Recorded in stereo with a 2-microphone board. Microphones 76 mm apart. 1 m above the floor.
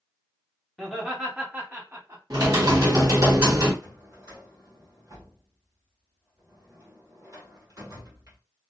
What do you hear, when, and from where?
0.8 s laughter: centre (ahead or behind), 1.1 m; by 2.2 s 40° right (ahead or behind), 1.1 m
2.3 s typing on a keyboard: 50° right (ahead or behind), 1.1 m
3.8 s a drawer: 40° right (ahead or behind), 1.2 m